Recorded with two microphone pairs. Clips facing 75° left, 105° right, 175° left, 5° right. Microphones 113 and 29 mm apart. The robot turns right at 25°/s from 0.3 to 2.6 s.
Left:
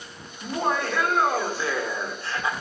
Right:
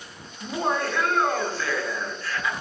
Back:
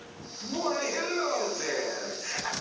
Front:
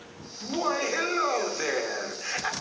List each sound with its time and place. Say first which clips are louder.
0.4 s laughter: even, front 2 dB; 30° right, 1.0 m; by 2.5 s 20° left, 1.0 m